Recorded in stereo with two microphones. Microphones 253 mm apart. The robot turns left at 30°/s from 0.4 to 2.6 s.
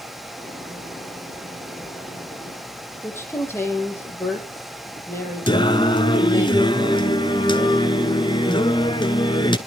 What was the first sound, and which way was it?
A woman speaking, 10° left (ahead or behind).